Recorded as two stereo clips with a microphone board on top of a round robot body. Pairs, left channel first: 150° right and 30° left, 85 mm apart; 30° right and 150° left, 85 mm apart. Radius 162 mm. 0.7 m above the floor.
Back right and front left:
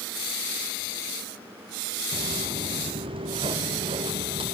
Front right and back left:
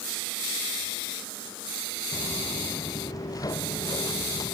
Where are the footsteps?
20° left.